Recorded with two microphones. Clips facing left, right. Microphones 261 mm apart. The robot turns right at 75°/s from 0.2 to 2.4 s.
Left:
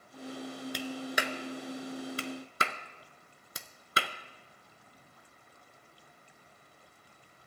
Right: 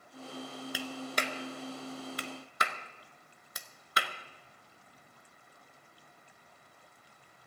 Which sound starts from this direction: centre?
A clap, at 0.7 s.